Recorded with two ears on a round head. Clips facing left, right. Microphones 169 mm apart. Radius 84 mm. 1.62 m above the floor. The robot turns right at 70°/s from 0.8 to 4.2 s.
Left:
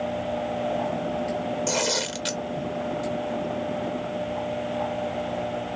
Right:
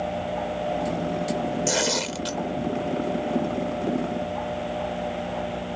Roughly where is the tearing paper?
Ahead.